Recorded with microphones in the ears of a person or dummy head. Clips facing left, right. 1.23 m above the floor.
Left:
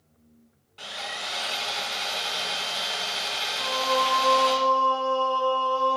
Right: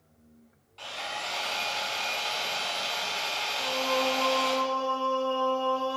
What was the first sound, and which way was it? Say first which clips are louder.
Sawing: even; 30° left (ahead or behind).